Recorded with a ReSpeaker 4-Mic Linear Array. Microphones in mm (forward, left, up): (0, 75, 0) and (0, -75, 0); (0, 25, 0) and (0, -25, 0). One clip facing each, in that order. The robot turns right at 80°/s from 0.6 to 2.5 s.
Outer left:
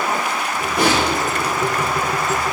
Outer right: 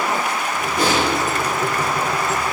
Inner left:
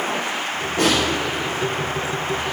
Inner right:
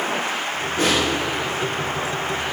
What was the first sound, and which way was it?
A snare drum, 65° left (ahead or behind).